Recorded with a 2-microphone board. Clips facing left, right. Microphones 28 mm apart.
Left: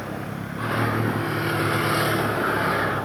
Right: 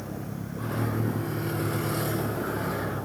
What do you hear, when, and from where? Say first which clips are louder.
0.0 s a vehicle: left 5 dB; 50° left (ahead or behind)